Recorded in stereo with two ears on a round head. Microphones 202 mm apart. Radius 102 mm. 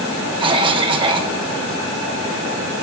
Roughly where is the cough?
Right.